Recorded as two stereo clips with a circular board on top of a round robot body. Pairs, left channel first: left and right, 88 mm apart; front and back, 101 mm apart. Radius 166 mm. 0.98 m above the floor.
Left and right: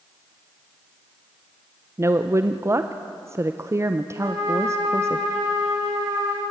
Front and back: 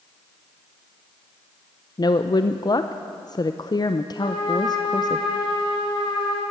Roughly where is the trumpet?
Ahead right.